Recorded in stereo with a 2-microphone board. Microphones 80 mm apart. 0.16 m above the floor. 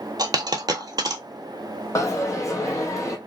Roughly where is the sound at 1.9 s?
Left.